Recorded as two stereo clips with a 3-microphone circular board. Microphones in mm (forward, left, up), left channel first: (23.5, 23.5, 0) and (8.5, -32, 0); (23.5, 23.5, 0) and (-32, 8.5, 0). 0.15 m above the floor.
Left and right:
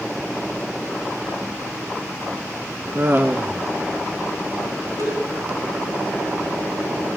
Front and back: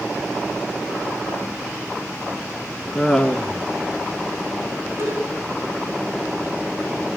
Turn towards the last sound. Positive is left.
turn(degrees=-130)